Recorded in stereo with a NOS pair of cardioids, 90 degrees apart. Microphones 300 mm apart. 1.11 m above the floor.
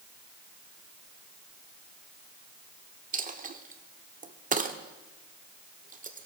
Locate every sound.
3.1 s a dropped coin: 30° right, 1.6 m